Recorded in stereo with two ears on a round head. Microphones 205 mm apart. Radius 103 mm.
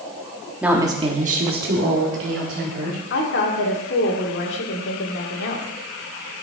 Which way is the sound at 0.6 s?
5° right (ahead or behind).